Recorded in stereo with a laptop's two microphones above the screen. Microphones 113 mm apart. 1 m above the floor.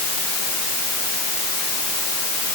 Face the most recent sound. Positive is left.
No sound to turn to.